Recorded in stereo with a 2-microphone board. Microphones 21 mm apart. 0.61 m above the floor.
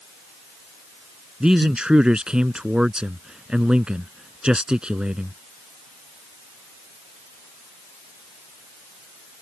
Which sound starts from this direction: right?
A man speaking, at 1.4 s.